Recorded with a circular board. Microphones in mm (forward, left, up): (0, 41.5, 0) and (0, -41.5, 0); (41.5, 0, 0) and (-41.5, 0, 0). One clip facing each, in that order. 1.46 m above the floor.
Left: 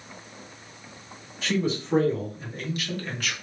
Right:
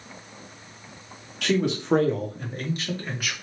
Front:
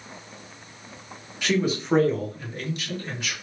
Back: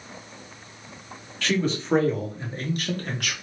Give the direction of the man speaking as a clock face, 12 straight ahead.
2 o'clock.